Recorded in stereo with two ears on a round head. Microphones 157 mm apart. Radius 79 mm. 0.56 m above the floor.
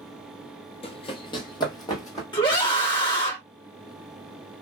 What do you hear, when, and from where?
0.8 s running footsteps: 35° left (ahead or behind), 0.7 m; by 2.2 s 20° left (ahead or behind), 1.3 m
2.3 s a scream: 25° left (ahead or behind), 1.3 m